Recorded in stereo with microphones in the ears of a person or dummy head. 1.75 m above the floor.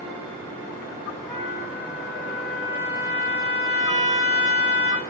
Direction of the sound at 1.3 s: 15° left (ahead or behind).